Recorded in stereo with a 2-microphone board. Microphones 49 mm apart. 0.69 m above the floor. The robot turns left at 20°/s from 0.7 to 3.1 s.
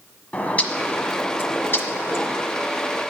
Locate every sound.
0.3 s a bird: 150° left, 1.4 m; by 2.4 s 115° left, 1.4 m